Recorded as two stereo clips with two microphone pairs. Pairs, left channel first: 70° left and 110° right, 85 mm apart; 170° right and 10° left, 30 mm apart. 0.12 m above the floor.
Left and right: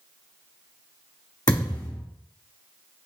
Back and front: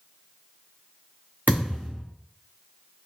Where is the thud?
35° left, 1.8 m.